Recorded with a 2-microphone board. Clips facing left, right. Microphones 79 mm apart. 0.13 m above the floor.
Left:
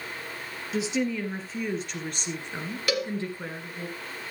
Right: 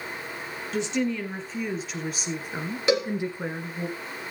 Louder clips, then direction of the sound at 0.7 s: Right 1 dB; 5° left (ahead or behind).